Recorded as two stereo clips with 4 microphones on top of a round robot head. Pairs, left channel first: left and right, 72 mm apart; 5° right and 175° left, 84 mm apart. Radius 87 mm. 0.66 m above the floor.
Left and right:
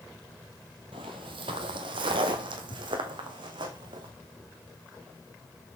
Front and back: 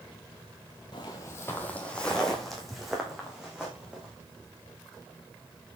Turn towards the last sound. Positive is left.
turn(degrees=-100)